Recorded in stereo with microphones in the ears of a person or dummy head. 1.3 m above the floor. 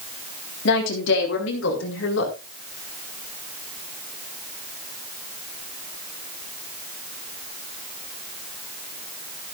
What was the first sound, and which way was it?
A woman speaking, 70° left (ahead or behind).